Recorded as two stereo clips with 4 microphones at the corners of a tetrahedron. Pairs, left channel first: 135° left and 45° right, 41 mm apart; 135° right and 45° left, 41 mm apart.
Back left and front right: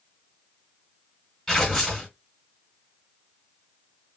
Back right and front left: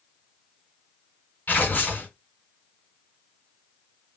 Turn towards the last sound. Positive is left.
turn(degrees=-155)